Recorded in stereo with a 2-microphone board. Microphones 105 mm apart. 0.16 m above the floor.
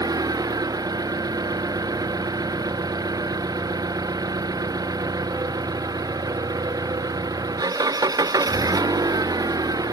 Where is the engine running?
40° right (ahead or behind).